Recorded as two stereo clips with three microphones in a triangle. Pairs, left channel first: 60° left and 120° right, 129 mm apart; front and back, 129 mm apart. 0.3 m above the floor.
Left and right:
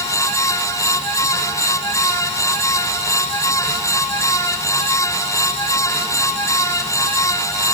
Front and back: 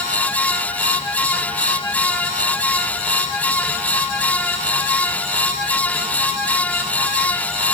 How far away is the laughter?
No laughter in this recording.